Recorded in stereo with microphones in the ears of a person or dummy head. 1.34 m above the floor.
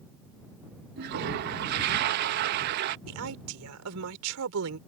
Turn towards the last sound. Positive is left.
turn(degrees=-85)